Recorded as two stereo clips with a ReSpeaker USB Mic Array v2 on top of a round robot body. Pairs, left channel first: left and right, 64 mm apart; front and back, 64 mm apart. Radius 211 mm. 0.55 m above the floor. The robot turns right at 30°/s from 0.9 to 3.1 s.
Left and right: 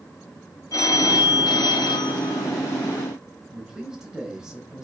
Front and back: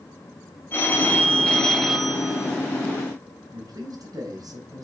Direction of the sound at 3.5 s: 170° right.